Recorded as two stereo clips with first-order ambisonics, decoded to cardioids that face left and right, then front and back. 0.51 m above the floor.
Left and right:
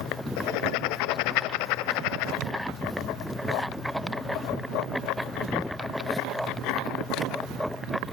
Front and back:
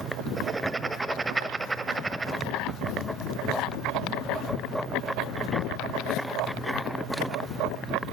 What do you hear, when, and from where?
0.4 s writing: 100° left, 1.0 m